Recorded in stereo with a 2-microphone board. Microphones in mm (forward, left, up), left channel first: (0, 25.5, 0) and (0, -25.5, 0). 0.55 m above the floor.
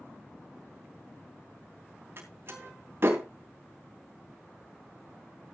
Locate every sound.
2.2 s a door slam: 50° right (ahead or behind), 3 m